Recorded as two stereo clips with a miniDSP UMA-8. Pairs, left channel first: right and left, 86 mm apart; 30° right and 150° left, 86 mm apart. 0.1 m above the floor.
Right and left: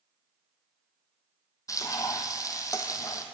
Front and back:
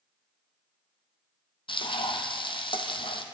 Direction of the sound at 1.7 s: 40° right.